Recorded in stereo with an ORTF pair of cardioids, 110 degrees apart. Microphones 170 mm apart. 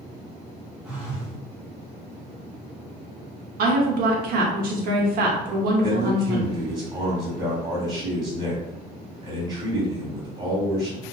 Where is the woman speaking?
65° right, 0.9 m.